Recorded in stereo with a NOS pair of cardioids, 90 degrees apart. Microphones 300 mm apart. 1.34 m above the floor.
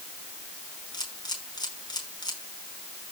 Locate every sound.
0.9 s a camera shutter: 15° left, 5 m